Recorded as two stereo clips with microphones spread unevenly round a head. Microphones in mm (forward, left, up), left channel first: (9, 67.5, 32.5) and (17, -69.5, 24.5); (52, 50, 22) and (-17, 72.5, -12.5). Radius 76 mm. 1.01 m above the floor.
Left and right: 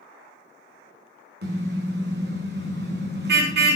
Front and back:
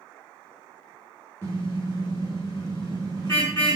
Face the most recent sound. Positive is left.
turn(degrees=-90)